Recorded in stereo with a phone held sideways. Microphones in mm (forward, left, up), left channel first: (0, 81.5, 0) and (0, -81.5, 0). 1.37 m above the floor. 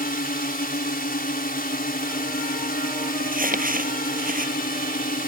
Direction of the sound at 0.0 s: 65° left (ahead or behind).